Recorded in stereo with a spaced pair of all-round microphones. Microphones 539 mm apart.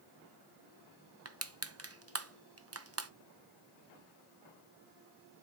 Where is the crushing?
30° right (ahead or behind), 0.6 m.